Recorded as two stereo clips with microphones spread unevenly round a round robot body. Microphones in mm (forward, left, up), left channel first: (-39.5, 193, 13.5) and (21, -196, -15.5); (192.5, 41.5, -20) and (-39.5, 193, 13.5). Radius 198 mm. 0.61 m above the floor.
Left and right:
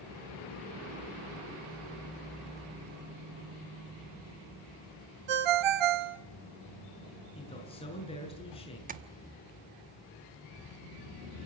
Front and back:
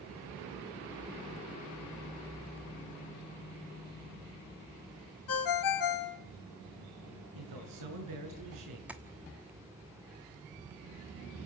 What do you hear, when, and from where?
5.3 s a ringtone: 65° right, 1.5 m
7.3 s a man speaking: 175° left, 7 m
8.9 s tapping: 120° right, 1.0 m